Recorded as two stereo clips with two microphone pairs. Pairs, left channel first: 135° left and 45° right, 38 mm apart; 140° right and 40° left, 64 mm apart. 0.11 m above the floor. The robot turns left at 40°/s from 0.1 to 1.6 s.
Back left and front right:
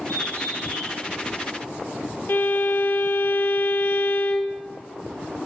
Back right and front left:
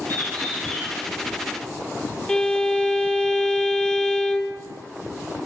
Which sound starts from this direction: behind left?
A violin, at 2.3 s.